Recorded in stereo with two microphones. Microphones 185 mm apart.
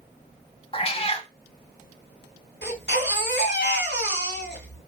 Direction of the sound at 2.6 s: 85° left.